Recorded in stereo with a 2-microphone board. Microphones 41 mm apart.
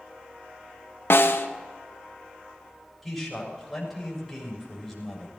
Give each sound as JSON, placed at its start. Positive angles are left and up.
{"t": 1.1, "sound": "a snare drum", "side_deg": 70, "distance_m": 0.9}
{"t": 3.0, "sound": "a man speaking", "side_deg": 0, "distance_m": 6.0}